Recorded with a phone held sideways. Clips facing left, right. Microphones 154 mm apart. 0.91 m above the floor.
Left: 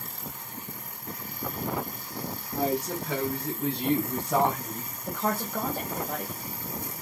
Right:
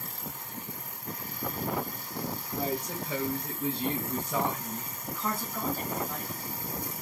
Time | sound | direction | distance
2.5 | a woman speaking | 85° left | 6.5 m
5.1 | a woman speaking | 80° left | 5.5 m